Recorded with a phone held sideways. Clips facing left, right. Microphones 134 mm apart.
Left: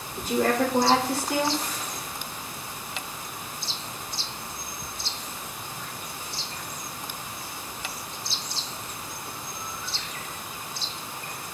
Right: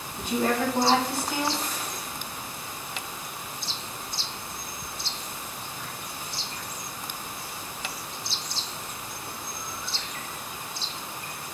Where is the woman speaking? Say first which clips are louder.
Left 2 dB; 75° left (ahead or behind), 2.5 m.